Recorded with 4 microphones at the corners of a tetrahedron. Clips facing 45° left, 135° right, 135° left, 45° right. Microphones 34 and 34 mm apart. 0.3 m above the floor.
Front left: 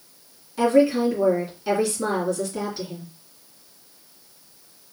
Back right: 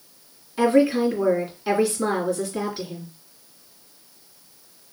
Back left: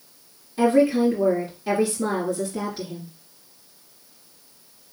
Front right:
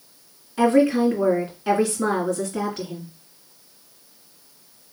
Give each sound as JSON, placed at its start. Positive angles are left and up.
{"t": 0.6, "sound": "a woman speaking", "azimuth_deg": -60, "distance_m": 3.0}